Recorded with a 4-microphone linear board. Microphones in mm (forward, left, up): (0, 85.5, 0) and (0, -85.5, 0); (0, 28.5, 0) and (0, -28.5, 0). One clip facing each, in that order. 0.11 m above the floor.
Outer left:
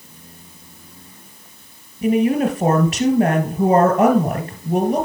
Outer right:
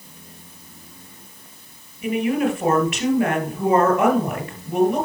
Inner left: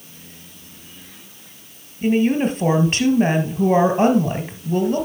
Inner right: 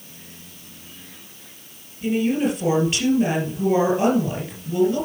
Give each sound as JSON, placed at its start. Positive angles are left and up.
{"t": 2.0, "sound": "a woman speaking", "side_deg": 35, "distance_m": 2.5}